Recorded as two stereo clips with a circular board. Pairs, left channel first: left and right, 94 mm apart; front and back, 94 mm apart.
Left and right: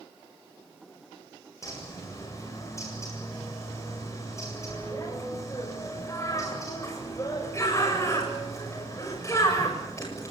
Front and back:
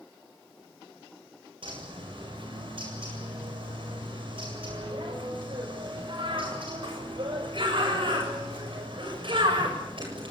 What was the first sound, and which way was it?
A bird, 150° left.